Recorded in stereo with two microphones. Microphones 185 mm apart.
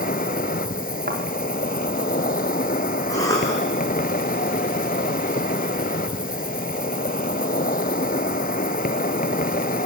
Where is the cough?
20° left (ahead or behind), 9 m.